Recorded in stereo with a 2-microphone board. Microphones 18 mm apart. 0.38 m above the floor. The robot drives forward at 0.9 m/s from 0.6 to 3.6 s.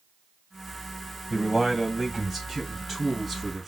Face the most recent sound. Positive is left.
turn(degrees=0)  # may be behind; listen again after turning